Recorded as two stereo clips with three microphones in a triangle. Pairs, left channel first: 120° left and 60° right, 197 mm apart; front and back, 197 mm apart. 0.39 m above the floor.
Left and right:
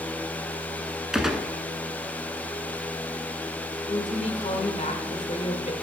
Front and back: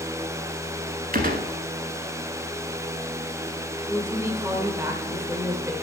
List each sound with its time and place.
1.1 s a gunshot: 145° right, 0.9 m
3.9 s a woman speaking: 115° left, 1.6 m